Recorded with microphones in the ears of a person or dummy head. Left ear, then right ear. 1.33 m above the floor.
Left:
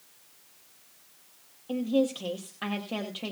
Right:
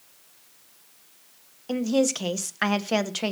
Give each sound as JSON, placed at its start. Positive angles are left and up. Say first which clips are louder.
{"t": 1.7, "sound": "a woman speaking", "louder": "right 3 dB", "side_deg": -60, "distance_m": 0.8}